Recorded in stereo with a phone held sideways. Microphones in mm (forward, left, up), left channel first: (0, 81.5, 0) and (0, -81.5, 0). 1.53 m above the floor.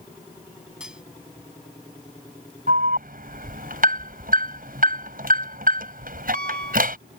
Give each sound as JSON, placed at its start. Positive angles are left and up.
{"t": 0.8, "sound": "cutlery clinking", "side_deg": -5}
{"t": 2.7, "sound": "an alarm", "side_deg": -60}